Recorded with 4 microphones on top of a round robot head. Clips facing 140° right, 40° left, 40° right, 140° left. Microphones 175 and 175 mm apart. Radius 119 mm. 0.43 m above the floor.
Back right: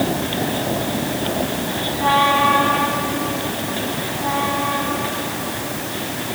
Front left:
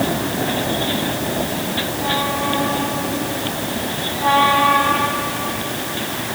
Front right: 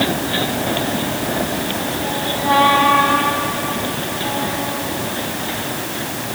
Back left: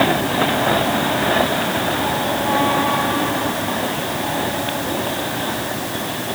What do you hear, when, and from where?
Only background noise.